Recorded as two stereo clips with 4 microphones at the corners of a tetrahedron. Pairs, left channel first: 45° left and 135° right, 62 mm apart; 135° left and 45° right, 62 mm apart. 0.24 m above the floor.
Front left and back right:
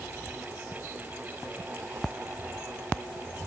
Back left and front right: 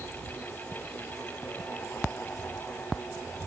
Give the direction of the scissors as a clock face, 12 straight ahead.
I don't hear scissors.